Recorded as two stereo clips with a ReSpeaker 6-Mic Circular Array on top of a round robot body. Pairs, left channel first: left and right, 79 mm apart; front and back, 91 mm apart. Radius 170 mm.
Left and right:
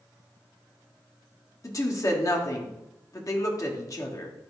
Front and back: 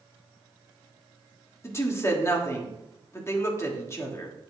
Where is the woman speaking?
55° left, 1.8 m.